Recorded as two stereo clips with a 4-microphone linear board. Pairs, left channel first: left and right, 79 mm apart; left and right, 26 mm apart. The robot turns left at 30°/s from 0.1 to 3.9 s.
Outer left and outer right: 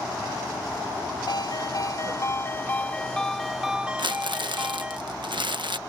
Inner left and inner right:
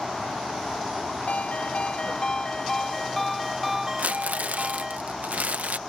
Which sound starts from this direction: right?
Crumpling, at 4.0 s.